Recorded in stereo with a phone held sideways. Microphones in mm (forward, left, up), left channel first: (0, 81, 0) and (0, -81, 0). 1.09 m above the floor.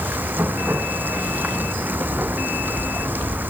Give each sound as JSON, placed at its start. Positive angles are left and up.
{"t": 0.0, "sound": "running water", "side_deg": -10}